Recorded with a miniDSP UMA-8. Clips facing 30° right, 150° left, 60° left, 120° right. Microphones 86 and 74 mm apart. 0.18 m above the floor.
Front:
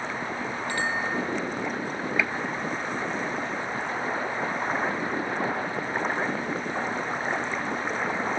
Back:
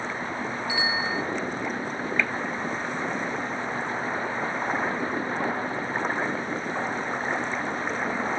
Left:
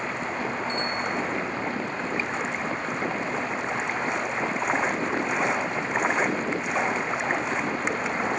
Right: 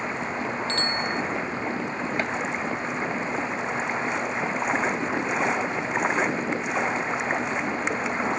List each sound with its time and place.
0.7 s a bicycle bell: 125° right
2.2 s a gunshot: 110° right